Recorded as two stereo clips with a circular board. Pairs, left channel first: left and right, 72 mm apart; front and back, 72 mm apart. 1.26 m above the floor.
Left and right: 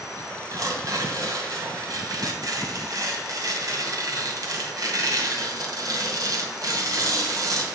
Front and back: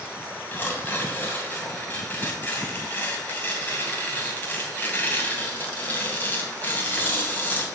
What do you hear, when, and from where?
0.5 s tearing paper: 65° right, 2.5 m